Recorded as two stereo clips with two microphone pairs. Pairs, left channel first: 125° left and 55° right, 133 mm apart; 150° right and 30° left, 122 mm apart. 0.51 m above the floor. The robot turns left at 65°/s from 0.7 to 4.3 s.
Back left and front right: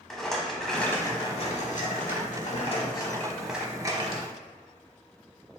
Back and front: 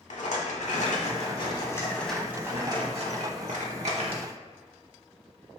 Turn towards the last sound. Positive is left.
turn(degrees=-20)